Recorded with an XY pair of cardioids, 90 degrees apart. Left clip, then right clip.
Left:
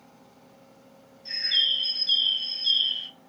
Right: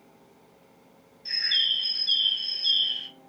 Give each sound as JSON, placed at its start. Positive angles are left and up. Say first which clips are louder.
{"t": 1.2, "sound": "a bird", "louder": "even", "azimuth_deg": -35, "distance_m": 1.2}